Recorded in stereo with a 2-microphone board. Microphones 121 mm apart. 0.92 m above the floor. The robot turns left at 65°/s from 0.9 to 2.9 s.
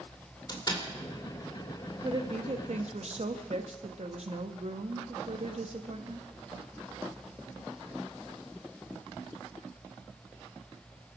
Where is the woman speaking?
45° right, 1.3 m; by 6.3 s 100° right, 1.3 m.